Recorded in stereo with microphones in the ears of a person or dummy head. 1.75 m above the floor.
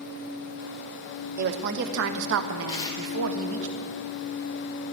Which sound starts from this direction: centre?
Tearing paper, at 2.7 s.